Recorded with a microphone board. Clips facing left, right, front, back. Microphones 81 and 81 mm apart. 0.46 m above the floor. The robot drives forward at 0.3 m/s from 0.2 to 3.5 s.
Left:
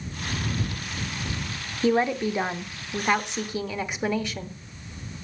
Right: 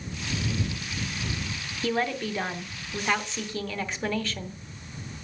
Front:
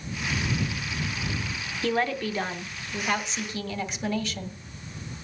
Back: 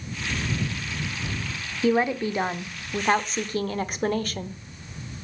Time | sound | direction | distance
1.8 | a woman speaking | 115° left | 0.7 m